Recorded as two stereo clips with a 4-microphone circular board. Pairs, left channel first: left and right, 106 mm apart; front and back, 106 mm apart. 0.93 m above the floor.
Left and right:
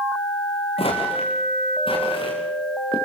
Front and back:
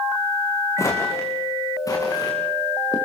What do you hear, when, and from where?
0.8 s footsteps: 60° left, 5.5 m; by 3.0 s 50° left, 7 m